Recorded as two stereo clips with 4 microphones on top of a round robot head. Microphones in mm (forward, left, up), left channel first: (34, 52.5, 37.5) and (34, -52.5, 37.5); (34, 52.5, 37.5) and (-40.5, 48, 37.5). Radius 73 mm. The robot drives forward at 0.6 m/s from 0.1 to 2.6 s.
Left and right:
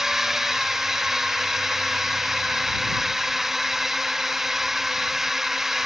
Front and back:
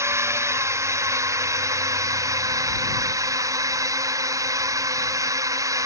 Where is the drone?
175° right.